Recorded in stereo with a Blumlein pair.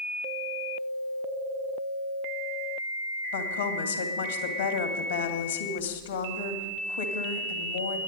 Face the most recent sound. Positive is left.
turn(degrees=65)